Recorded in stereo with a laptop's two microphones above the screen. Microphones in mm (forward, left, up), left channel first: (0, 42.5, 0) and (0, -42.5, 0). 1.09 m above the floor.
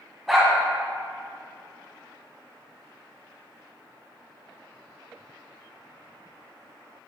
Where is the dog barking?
Centre (ahead or behind), 1.8 m.